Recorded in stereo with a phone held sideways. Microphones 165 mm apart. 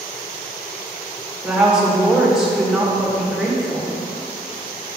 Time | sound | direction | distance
1.4 | a woman speaking | 5° right (ahead or behind) | 2 m